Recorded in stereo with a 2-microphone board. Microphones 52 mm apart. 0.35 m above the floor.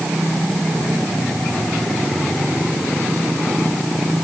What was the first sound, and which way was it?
Only background noise.